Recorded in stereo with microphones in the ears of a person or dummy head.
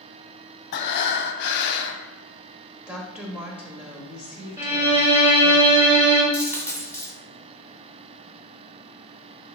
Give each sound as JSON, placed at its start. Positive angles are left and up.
{"t": 0.7, "sound": "breathing", "side_deg": 65, "distance_m": 0.5}
{"t": 2.9, "sound": "a woman speaking", "side_deg": -5, "distance_m": 0.7}
{"t": 4.6, "sound": "a violin", "side_deg": -10, "distance_m": 0.8}
{"t": 6.3, "sound": "a dropped coin", "side_deg": -10, "distance_m": 1.8}